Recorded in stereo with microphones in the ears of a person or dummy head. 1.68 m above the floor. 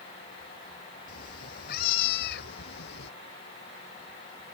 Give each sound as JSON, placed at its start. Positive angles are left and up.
{"t": 1.1, "sound": "a cat meowing", "side_deg": 50}